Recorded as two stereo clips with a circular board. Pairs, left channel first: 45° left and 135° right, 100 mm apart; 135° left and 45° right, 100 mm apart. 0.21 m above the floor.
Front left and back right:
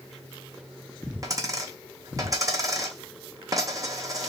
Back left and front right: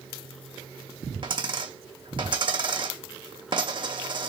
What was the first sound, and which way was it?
A dropped coin, 80° right.